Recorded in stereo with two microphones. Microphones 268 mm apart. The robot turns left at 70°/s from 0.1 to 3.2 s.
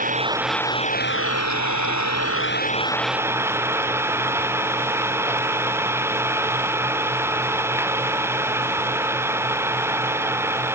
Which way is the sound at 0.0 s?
150° right.